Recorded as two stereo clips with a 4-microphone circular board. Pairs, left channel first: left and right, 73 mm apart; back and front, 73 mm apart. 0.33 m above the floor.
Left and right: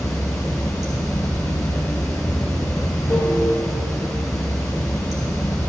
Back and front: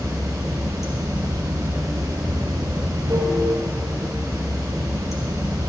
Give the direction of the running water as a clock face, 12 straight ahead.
11 o'clock.